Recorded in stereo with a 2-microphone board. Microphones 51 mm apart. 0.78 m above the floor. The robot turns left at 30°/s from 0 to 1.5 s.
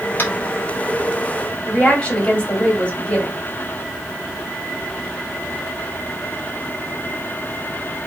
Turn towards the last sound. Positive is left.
turn(degrees=25)  # may be behind; listen again after turning